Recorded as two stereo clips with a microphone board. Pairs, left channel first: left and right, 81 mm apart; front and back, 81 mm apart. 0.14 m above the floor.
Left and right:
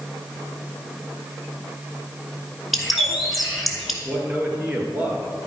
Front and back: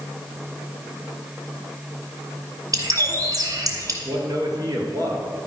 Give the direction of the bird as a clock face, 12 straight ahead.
6 o'clock.